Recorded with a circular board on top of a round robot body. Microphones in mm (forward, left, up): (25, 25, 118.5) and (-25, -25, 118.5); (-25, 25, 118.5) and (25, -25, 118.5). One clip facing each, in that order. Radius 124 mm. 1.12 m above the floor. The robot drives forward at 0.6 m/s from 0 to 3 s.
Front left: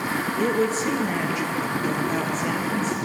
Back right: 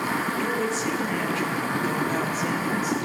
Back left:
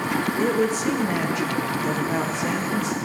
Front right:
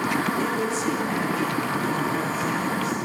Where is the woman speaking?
85° left, 0.9 m; by 3.0 s 150° left, 1.7 m.